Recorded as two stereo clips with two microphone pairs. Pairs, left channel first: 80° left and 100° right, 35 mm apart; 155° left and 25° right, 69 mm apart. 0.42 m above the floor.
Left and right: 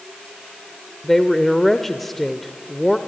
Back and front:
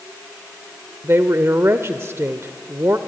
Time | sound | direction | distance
1.0 | a woman speaking | straight ahead | 1.0 m